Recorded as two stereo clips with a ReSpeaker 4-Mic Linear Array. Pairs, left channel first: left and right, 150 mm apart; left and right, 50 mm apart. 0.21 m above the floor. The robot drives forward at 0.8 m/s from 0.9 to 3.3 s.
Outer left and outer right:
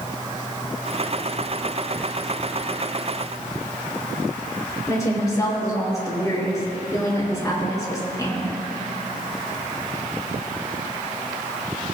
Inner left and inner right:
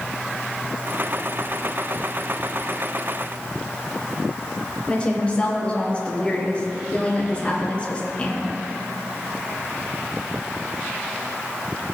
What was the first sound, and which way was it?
A woman speaking, 20° left (ahead or behind).